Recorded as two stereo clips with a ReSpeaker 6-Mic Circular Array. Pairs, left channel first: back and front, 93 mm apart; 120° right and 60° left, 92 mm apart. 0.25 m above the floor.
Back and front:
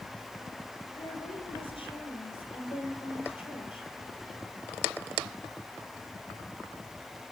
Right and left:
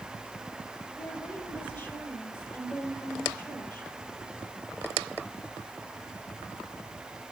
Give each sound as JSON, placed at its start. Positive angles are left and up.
{"t": 0.9, "sound": "a woman speaking", "azimuth_deg": 180, "distance_m": 5.0}